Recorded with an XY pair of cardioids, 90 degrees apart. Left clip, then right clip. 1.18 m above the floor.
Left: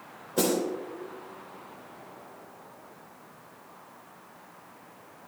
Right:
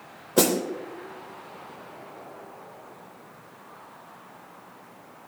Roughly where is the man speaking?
No man speaking in this recording.